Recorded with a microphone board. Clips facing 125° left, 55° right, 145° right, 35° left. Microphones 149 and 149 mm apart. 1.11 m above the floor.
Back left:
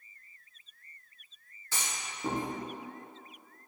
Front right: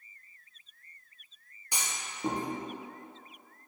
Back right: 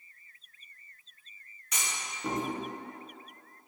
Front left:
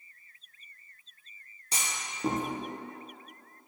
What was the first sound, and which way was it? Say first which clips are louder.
A clunk: even, front left 1 dB; 5° left.